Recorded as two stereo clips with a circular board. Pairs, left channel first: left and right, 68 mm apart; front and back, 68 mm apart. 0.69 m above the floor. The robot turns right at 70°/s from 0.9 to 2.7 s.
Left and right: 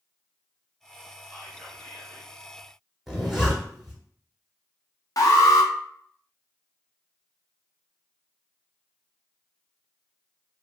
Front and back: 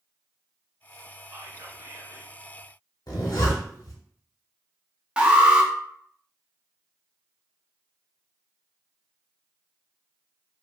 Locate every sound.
1.3 s whispering: 135° left, 0.9 m; by 2.3 s 155° right, 0.9 m
3.1 s a zipper: straight ahead, 0.9 m
5.2 s an alarm: 105° left, 0.5 m